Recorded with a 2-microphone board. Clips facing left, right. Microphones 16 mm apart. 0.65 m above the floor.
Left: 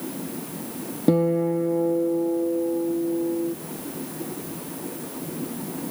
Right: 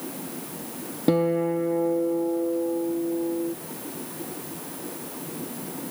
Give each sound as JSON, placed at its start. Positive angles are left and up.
{"t": 1.1, "sound": "a guitar", "side_deg": -30}